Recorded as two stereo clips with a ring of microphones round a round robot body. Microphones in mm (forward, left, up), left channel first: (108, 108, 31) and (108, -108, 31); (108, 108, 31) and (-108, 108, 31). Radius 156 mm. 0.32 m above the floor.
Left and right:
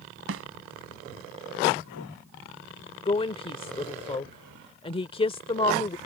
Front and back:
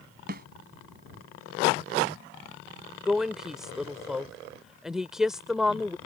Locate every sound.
0.3 s a snare drum: 125° right
3.0 s a woman speaking: 95° left